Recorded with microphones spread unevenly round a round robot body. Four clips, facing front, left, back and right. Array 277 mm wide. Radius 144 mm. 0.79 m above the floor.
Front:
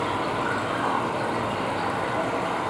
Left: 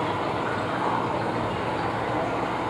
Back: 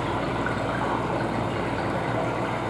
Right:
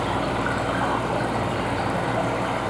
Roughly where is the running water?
Behind right.